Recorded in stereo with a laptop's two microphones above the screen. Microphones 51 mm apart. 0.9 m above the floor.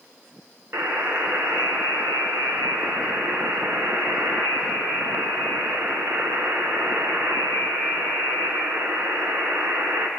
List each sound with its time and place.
0.7 s a buzzer: 55° right (ahead or behind), 2 m